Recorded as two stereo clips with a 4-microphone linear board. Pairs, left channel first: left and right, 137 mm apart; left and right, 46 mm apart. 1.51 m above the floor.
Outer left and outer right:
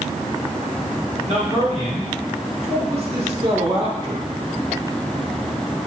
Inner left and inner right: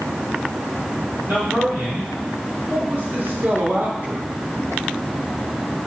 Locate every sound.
1.3 s a man speaking: 55° right (ahead or behind), 4 m; by 4.3 s 35° right (ahead or behind), 1.7 m